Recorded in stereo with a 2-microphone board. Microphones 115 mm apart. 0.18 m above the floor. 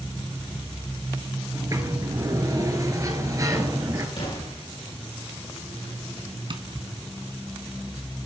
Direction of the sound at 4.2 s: 55° left (ahead or behind).